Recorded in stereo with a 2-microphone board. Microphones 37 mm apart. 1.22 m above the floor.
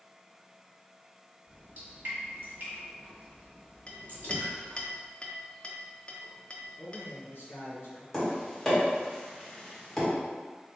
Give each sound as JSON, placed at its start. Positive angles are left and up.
{"t": 1.5, "sound": "dripping", "side_deg": -50, "distance_m": 1.6}
{"t": 3.9, "sound": "a clink", "side_deg": 30, "distance_m": 0.5}
{"t": 6.8, "sound": "a man speaking", "side_deg": 60, "distance_m": 1.4}
{"t": 8.1, "sound": "tapping", "side_deg": 5, "distance_m": 1.4}